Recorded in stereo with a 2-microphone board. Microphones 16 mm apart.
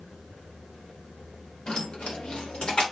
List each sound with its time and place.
1.7 s keys jangling: 60° left (ahead or behind), 1.1 m; by 2.8 s 70° left (ahead or behind), 1.8 m